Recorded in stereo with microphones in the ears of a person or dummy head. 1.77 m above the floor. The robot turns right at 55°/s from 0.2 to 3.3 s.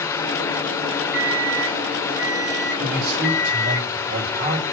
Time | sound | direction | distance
1.1 | an alarm clock | 175° right | 3 m
2.8 | a man speaking | 70° right (ahead or behind) | 3.5 m